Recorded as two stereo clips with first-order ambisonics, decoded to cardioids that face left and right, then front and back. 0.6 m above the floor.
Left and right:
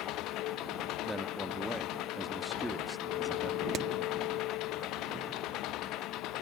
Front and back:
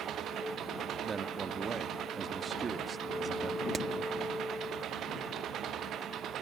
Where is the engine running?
130° left.